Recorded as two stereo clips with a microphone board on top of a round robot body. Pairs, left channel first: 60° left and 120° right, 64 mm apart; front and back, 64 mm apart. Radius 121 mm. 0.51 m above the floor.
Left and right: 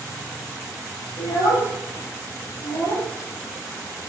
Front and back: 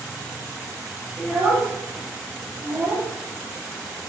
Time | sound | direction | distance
1.2 | a child speaking | 85° left | 8.5 m